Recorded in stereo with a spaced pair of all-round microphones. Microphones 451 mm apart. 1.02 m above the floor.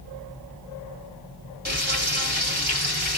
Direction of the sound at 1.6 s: 20° right (ahead or behind).